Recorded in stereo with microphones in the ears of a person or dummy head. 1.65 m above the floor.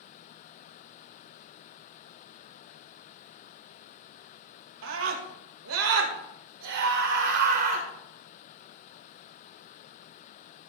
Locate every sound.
4.8 s a scream: 70° right (ahead or behind), 1.9 m; by 7.9 s 45° right (ahead or behind), 1.6 m